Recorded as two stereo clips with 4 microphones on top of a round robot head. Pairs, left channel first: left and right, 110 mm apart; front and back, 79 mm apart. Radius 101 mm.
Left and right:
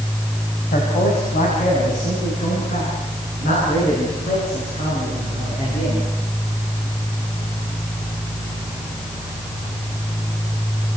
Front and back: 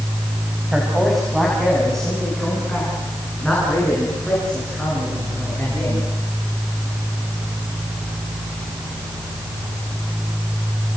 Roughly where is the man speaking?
Left.